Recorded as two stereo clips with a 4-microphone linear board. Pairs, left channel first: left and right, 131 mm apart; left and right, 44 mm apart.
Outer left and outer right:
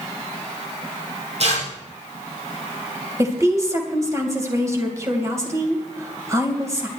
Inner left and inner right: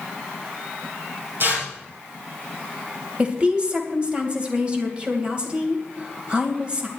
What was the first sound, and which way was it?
Tearing paper, 55° right (ahead or behind).